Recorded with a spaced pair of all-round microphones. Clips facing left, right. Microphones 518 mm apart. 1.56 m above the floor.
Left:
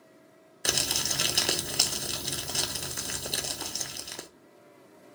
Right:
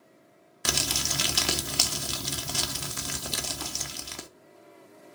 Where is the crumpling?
25° right (ahead or behind), 0.5 m.